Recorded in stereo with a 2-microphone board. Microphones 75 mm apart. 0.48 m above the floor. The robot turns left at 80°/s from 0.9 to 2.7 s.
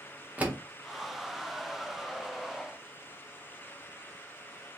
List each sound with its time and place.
0.4 s a door slam: 20° right (ahead or behind), 0.7 m